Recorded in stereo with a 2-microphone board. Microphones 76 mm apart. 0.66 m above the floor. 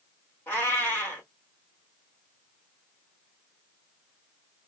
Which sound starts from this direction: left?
A cat meowing, at 0.5 s.